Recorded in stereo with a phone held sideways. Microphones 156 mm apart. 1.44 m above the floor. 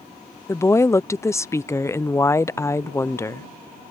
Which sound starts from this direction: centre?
A woman speaking, at 0.5 s.